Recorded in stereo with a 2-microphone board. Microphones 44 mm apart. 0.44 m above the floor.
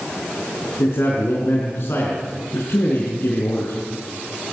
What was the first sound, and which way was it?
A man speaking, 65° left (ahead or behind).